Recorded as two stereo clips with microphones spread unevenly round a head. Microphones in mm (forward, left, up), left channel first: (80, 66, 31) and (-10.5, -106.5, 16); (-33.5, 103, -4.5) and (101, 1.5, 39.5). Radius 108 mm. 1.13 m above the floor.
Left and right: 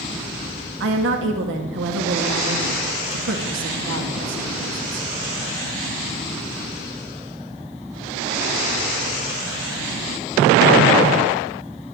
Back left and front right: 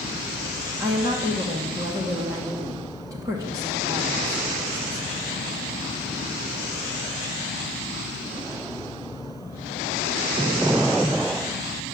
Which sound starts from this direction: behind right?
A woman speaking, at 0.8 s.